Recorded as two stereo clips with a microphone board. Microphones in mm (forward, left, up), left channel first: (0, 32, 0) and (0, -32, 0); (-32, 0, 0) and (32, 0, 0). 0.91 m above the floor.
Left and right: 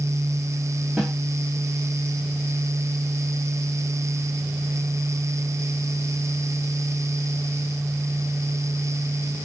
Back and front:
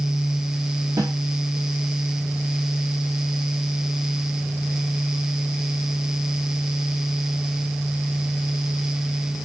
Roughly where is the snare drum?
Ahead.